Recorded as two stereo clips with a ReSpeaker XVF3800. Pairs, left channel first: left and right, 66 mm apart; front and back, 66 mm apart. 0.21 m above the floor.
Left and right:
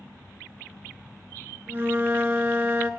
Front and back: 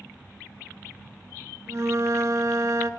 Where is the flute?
140° right, 0.5 m.